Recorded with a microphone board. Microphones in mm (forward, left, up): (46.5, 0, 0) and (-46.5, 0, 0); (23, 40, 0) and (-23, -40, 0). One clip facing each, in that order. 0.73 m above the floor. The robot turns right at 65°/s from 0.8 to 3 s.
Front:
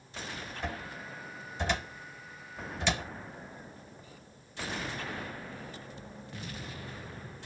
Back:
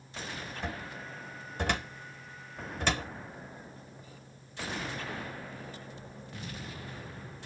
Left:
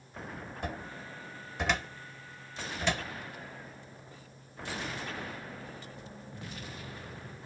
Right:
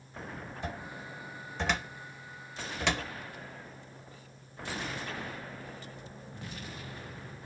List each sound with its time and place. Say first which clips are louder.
0.6 s a cupboard door: front 2 dB, left 1 dB; 90° left, 1.1 m; by 3.1 s 125° right, 1.1 m